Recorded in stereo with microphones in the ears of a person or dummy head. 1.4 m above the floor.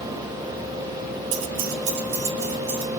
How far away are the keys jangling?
About 0.5 m.